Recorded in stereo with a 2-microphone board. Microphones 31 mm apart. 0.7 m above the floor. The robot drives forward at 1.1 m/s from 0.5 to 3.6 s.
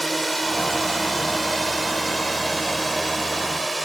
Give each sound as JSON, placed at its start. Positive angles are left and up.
{"t": 0.0, "sound": "a drone", "side_deg": 0}